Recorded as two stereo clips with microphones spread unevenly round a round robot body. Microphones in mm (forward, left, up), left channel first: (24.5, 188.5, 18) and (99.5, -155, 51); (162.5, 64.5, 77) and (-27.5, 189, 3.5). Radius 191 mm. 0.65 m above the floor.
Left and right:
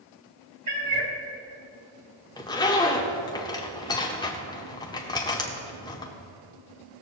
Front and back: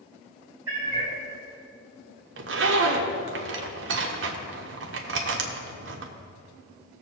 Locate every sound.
0.7 s a cat meowing: 130° right, 1.2 m
2.4 s a zipper: straight behind, 0.7 m